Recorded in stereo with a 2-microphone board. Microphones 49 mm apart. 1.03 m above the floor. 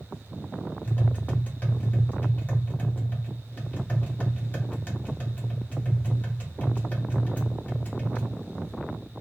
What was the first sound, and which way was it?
Tapping, 35° left (ahead or behind).